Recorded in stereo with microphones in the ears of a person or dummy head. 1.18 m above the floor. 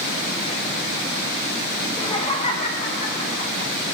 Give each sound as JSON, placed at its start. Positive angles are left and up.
{"t": 1.8, "sound": "laughter", "side_deg": 25, "distance_m": 2.0}